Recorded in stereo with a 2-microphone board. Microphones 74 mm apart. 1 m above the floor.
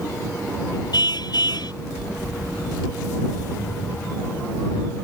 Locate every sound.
0.9 s a car horn: 70° left (ahead or behind)